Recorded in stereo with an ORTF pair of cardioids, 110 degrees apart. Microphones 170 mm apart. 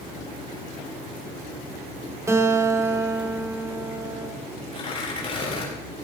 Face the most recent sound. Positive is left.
turn(degrees=35)